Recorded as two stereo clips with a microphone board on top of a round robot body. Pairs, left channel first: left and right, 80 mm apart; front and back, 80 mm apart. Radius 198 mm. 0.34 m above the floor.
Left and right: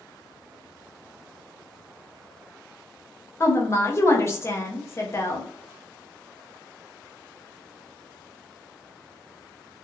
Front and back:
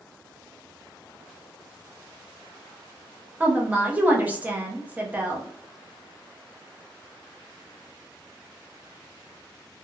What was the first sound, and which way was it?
A woman speaking, 120° left.